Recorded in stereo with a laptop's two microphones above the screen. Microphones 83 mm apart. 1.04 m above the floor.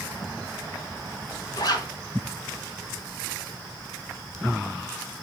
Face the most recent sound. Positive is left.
turn(degrees=55)  # may be behind; listen again after turning